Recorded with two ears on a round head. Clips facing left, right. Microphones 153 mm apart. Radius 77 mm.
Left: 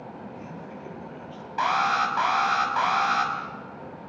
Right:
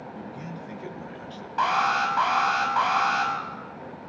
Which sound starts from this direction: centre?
An alarm, at 1.6 s.